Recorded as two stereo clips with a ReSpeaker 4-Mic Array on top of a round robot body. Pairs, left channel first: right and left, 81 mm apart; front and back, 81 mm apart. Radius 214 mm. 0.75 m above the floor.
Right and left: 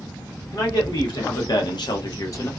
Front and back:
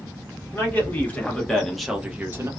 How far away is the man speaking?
About 1.4 m.